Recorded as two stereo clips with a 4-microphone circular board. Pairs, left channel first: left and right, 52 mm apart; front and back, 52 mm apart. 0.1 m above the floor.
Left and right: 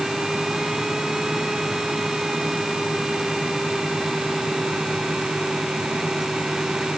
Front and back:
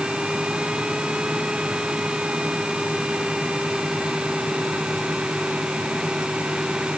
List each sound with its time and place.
Only background noise.